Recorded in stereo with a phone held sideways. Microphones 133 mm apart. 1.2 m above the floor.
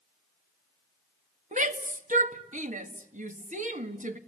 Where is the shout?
70° right (ahead or behind), 1.8 m.